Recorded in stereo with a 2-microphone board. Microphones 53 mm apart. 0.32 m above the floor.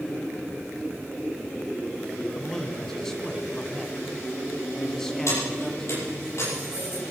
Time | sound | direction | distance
2.4 | a man speaking | 10° left (ahead or behind) | 2 m
5.3 | keys jangling | 60° left (ahead or behind) | 8.5 m